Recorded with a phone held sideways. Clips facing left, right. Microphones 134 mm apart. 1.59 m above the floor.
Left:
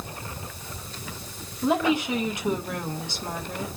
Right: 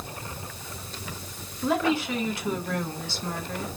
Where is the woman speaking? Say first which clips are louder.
Left 2 dB; 20° left (ahead or behind), 3.5 m.